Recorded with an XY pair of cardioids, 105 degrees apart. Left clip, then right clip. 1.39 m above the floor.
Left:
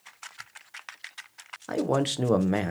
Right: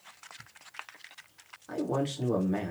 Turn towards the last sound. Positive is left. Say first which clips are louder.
# left 5 dB
turn(degrees=70)